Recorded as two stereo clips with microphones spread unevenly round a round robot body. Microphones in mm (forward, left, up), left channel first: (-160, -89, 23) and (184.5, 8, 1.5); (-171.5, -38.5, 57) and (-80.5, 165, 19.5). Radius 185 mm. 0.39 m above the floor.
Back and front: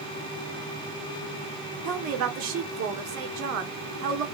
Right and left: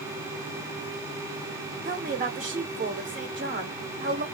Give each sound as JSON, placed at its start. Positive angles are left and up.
{"t": 1.9, "sound": "a woman speaking", "azimuth_deg": 35, "distance_m": 1.1}